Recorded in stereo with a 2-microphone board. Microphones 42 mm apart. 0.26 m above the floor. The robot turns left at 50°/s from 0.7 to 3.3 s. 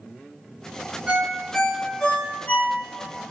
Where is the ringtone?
25° right (ahead or behind), 1.1 m; by 3.1 s 70° left (ahead or behind), 1.1 m.